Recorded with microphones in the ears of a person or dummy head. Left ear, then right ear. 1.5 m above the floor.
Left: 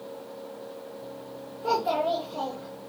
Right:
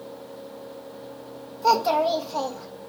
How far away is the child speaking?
About 1.1 m.